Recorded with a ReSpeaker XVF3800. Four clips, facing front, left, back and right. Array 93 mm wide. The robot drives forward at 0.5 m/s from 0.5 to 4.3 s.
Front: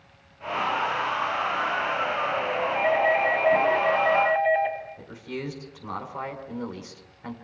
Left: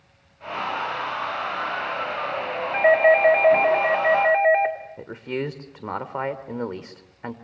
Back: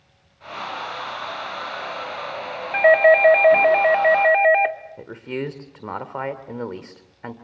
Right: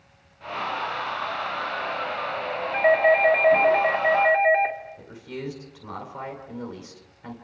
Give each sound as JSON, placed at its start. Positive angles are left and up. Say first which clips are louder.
{"t": 2.7, "sound": "a doorbell", "louder": "left 2 dB, back 10 dB", "azimuth_deg": 165, "distance_m": 1.9}
{"t": 5.0, "sound": "a man speaking", "louder": "left 7 dB, back 6 dB", "azimuth_deg": 135, "distance_m": 2.5}